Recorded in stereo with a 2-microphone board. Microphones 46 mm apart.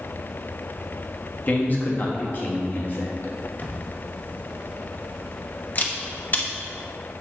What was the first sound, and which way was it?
A man speaking, 40° left (ahead or behind).